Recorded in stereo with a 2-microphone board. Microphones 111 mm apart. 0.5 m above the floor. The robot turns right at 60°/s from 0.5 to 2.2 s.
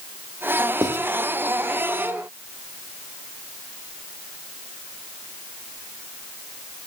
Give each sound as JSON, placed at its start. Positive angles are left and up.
{"t": 0.8, "sound": "writing", "side_deg": -35, "distance_m": 1.7}